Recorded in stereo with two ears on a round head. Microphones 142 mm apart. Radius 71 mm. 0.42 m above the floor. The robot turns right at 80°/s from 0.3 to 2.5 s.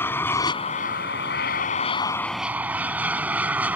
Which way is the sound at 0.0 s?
15° left.